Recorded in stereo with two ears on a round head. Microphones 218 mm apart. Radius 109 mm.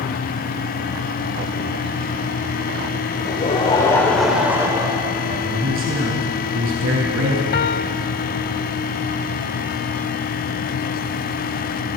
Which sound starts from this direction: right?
A man speaking, at 5.4 s.